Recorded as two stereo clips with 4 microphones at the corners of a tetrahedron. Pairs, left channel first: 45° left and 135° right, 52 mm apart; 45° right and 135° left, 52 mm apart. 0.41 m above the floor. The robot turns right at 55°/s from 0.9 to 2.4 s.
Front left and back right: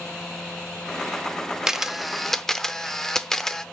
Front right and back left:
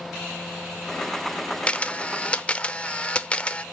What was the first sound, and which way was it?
A camera shutter, 65° right.